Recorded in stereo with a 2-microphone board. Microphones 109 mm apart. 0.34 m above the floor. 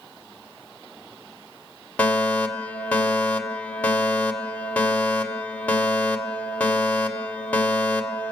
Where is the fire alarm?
15° left (ahead or behind), 2 m.